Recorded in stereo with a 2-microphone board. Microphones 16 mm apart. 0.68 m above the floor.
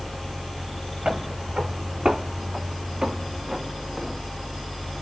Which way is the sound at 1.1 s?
75° right (ahead or behind).